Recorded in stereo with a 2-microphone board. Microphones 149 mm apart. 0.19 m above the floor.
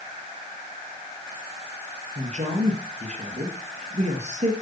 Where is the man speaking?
55° right (ahead or behind), 3.5 m.